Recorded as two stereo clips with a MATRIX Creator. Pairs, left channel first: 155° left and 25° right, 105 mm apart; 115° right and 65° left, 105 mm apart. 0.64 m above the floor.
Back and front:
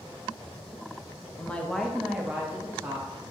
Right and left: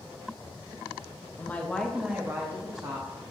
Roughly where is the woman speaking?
Behind right.